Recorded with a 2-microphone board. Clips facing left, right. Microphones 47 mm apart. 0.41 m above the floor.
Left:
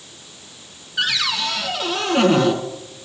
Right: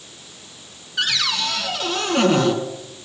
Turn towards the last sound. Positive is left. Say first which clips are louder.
# left 1 dB
turn(degrees=5)  # may be behind; listen again after turning